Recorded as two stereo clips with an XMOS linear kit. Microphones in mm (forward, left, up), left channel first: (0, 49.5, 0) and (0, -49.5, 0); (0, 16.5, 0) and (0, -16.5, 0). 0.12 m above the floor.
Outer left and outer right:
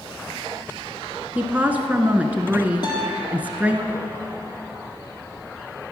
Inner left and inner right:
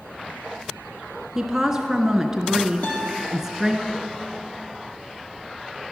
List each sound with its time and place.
1.4 s a woman speaking: 15° right (ahead or behind), 1.2 m
2.8 s a guitar: 45° left (ahead or behind), 4 m